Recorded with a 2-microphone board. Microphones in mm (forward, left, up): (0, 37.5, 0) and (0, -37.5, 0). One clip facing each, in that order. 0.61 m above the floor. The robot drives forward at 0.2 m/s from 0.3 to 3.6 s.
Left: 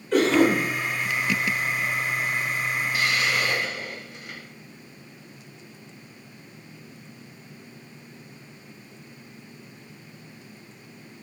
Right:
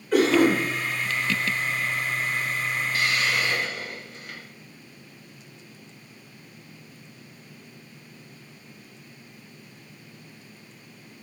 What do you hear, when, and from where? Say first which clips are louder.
0.1 s a cough: even; 5° right (ahead or behind), 1.1 m
2.9 s a hiss: even; 15° left (ahead or behind), 0.9 m; by 4.5 s 10° left (ahead or behind), 1.0 m